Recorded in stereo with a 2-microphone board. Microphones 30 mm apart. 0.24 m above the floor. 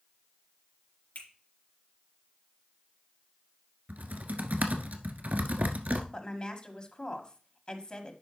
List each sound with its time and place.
1.1 s a finger snap: 60° left (ahead or behind), 3.5 m
3.9 s typing on a keyboard: 70° right (ahead or behind), 1.1 m
6.1 s a woman speaking: 30° left (ahead or behind), 1.5 m